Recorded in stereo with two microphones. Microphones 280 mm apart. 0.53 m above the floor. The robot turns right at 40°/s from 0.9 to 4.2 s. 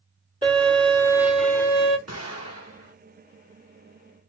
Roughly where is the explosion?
Right.